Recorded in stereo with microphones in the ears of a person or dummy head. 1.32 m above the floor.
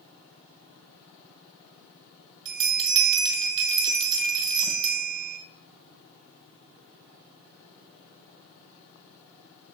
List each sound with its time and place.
2.5 s a bell: 20° right (ahead or behind), 2 m